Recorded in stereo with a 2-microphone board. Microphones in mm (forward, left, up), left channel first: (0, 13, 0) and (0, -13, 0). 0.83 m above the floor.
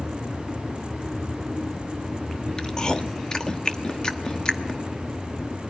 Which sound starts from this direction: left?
Chewing, at 2.6 s.